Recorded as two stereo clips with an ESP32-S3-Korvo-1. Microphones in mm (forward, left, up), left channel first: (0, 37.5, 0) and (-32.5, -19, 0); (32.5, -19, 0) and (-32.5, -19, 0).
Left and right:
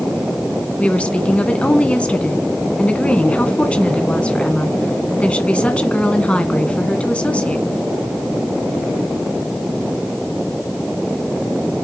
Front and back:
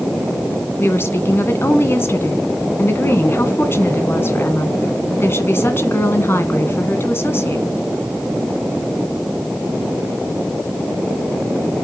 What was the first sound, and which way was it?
A woman speaking, straight ahead.